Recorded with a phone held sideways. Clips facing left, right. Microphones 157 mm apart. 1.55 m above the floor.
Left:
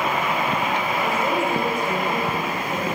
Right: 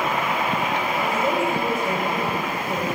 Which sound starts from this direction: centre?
A woman speaking, at 1.0 s.